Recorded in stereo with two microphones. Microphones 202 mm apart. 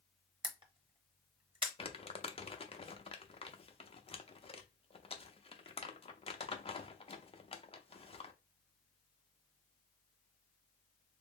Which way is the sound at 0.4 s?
25° right (ahead or behind).